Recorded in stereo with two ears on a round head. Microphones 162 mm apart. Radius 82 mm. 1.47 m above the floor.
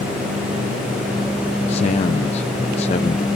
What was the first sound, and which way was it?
A man speaking, 35° left (ahead or behind).